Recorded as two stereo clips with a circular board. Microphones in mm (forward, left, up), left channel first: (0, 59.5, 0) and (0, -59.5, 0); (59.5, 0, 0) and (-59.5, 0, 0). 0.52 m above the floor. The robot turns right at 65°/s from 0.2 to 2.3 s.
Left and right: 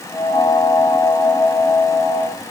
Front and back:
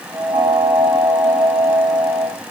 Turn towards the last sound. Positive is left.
No sound to turn to.